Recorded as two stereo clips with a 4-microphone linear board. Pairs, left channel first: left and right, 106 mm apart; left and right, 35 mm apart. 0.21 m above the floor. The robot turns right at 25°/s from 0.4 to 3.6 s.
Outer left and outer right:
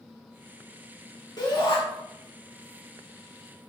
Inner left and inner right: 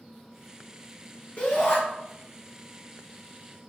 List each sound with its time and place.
1.4 s a shout: 40° left (ahead or behind), 1.5 m; by 1.8 s 45° left (ahead or behind), 1.5 m